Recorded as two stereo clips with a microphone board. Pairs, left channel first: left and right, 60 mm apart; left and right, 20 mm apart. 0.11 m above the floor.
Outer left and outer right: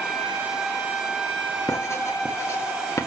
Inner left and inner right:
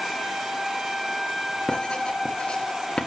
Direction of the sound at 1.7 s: 50° left (ahead or behind).